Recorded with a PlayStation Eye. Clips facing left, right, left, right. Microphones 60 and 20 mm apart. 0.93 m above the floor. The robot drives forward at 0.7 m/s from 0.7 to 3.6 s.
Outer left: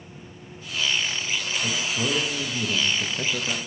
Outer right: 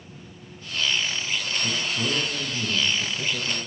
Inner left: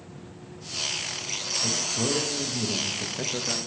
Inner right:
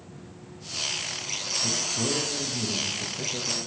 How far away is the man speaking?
About 1.3 m.